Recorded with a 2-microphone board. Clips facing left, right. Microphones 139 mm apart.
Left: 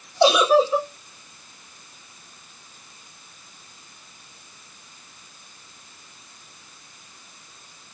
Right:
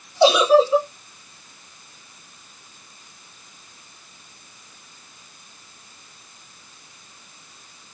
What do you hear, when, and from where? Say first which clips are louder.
0.2 s a giggle: right 2 dB; 5° left (ahead or behind), 3.5 m